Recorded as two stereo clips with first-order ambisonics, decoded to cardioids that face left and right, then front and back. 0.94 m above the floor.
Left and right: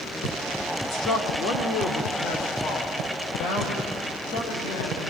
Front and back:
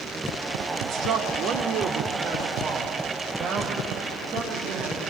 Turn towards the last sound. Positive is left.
turn(degrees=120)